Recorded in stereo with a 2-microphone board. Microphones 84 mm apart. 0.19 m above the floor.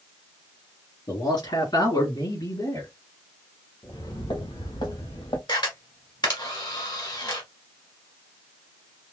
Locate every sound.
1.1 s a man speaking: 60° left (ahead or behind), 3 m; by 2.9 s 55° left (ahead or behind), 2 m
3.8 s footsteps: 75° left (ahead or behind), 3 m; by 5.4 s 85° left, 3.5 m
5.5 s a camera shutter: 60° left (ahead or behind), 1.7 m